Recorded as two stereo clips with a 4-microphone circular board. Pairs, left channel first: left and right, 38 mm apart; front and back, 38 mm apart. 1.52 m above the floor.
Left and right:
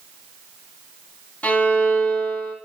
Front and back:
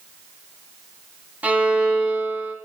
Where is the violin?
140° left, 3 m.